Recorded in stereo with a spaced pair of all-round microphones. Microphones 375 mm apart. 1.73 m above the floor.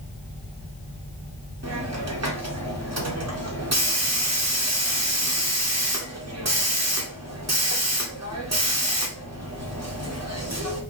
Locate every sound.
1.6 s a hiss: 45° right (ahead or behind), 0.8 m